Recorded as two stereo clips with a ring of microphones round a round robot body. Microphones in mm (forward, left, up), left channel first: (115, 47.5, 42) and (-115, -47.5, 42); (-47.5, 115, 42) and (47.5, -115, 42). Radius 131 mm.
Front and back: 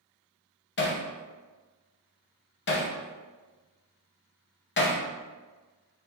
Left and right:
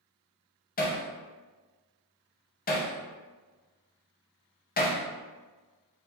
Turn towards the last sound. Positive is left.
turn(degrees=60)